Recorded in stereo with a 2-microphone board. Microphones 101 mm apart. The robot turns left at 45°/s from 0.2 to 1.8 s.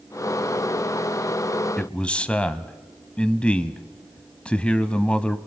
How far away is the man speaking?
About 1.0 m.